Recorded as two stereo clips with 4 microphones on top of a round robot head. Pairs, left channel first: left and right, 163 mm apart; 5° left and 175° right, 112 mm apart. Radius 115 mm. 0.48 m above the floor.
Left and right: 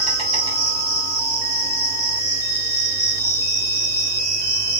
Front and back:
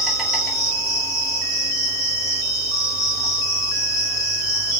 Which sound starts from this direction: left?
An insect, at 0.0 s.